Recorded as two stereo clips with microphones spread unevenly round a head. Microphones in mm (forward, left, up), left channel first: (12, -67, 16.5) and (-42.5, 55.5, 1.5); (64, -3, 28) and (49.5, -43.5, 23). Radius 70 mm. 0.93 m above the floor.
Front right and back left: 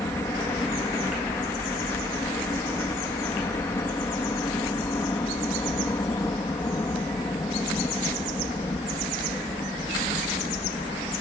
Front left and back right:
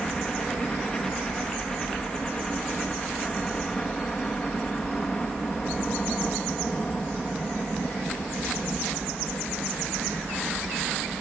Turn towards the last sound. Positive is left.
turn(degrees=0)